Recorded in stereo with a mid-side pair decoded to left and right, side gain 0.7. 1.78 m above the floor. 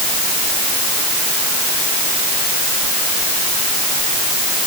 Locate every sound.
Only background noise.